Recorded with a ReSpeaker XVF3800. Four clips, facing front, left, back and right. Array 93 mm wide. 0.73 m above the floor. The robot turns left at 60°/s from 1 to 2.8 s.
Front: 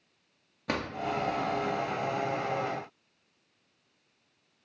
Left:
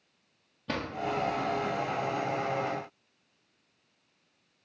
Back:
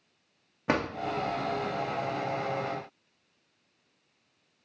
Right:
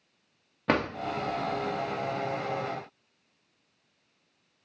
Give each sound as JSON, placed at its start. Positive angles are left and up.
{"t": 0.7, "sound": "a drawer", "azimuth_deg": -120, "distance_m": 0.5}